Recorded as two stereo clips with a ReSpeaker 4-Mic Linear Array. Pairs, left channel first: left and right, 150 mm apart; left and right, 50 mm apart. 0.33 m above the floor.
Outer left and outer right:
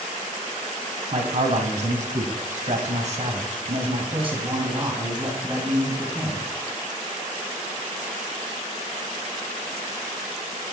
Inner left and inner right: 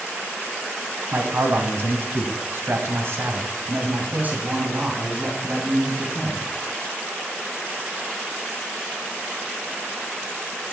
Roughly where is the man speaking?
Right.